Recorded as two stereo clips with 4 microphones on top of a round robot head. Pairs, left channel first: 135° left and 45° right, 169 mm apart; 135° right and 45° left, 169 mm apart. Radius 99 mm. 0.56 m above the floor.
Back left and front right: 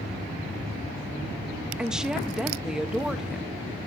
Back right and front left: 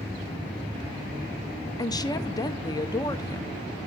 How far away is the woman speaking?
About 0.8 m.